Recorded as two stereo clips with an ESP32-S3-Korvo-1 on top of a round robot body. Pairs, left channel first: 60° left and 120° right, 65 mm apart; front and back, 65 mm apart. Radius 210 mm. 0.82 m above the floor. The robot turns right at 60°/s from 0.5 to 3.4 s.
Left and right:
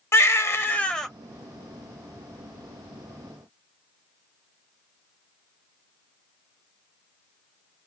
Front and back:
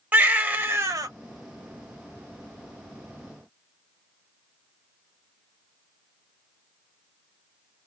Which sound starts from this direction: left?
A baby crying, at 0.1 s.